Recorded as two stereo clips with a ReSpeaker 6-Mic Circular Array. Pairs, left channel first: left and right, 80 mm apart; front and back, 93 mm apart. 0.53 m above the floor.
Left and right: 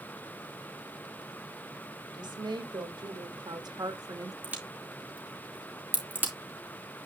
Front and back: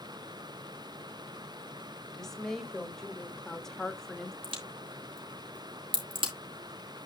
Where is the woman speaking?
85° right, 2.5 m.